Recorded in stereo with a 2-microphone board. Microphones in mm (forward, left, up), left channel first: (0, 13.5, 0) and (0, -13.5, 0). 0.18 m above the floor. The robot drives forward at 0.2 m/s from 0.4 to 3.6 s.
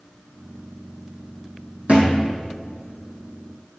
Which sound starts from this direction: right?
A thud, at 1.9 s.